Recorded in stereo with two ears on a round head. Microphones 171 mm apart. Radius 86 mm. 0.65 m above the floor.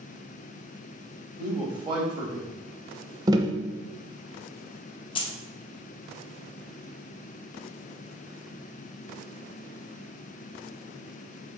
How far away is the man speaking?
About 1.5 m.